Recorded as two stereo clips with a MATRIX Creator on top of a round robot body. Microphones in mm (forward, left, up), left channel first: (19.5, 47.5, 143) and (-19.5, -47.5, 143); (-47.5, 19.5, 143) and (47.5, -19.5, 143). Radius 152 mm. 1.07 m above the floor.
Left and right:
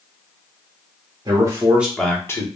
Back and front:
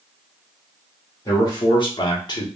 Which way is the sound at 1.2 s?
155° right.